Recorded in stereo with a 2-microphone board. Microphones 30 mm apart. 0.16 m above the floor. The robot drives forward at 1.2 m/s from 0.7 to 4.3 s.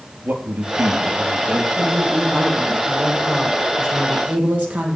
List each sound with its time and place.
0.2 s a man speaking: 70° right (ahead or behind), 3.5 m; by 1.6 s 60° right (ahead or behind), 3.5 m
1.8 s a woman speaking: 35° right (ahead or behind), 7.5 m; by 5.0 s 50° right (ahead or behind), 5 m